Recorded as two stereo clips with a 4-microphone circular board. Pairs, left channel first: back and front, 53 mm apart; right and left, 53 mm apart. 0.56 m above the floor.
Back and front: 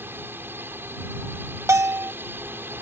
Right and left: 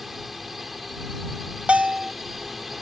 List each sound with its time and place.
0.0 s a drone: 5° left
1.7 s a bell: 25° left